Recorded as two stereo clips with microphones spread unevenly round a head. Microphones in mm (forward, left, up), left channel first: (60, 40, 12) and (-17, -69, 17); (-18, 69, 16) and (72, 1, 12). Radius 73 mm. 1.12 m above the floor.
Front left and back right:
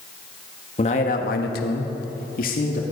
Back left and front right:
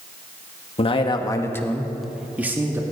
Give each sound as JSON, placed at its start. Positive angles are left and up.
{"t": 0.8, "sound": "a man speaking", "azimuth_deg": 105, "distance_m": 1.6}